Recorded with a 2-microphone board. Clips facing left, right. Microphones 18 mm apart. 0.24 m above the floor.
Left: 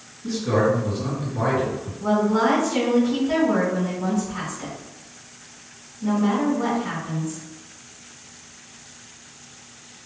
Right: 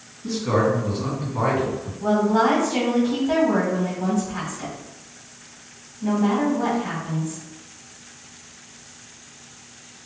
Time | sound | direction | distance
0.2 | a man speaking | 45° right (ahead or behind) | 2.0 m
2.0 | a woman speaking | 35° right (ahead or behind) | 1.7 m